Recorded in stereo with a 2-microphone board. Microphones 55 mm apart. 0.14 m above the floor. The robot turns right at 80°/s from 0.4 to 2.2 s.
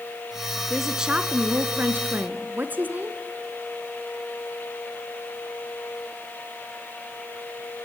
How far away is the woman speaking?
About 1.3 m.